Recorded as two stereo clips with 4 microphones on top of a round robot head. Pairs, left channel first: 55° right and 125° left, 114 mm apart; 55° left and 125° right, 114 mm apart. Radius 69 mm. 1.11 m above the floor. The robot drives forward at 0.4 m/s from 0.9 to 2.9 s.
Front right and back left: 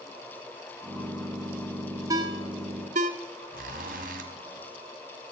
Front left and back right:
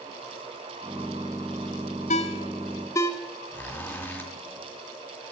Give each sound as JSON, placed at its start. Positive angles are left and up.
{"t": 2.1, "sound": "a ringtone", "azimuth_deg": 70, "distance_m": 0.6}
{"t": 3.5, "sound": "a zipper", "azimuth_deg": 130, "distance_m": 1.5}